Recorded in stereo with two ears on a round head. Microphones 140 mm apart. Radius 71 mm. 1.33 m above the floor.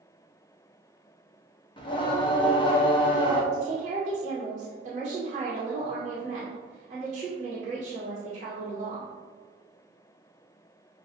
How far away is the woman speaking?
About 1.2 m.